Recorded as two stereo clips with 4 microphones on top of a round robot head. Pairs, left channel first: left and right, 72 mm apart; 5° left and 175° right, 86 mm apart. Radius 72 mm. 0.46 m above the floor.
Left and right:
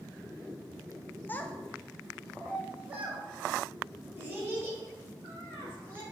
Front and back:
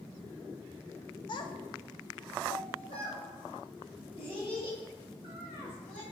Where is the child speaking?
30° left, 0.5 m; by 6.0 s 35° right, 3 m.